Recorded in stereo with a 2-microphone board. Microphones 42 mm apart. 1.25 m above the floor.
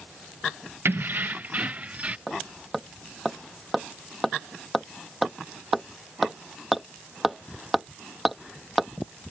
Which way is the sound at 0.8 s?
65° right (ahead or behind).